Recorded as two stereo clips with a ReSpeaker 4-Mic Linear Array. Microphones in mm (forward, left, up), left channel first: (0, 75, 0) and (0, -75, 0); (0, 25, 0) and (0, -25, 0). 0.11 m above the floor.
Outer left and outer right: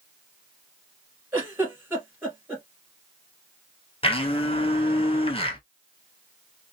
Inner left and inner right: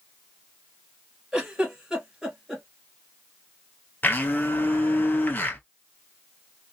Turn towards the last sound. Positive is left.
turn(degrees=40)  # may be behind; listen again after turning